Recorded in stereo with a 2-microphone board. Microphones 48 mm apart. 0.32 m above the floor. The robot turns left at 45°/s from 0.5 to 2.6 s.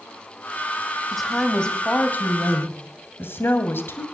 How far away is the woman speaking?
About 1.8 m.